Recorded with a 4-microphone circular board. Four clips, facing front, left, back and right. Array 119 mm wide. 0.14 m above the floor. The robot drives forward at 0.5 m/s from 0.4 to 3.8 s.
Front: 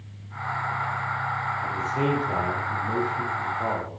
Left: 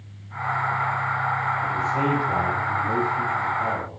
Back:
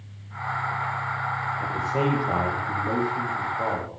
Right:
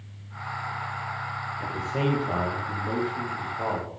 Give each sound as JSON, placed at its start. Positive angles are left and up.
{"t": 1.6, "sound": "a man speaking", "azimuth_deg": -150, "distance_m": 5.5}